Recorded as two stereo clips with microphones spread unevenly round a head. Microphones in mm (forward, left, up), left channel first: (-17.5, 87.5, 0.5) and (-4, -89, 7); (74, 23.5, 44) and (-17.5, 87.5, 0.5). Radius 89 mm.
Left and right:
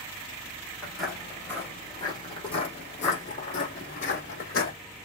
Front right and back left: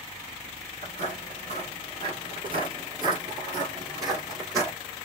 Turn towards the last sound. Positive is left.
turn(degrees=70)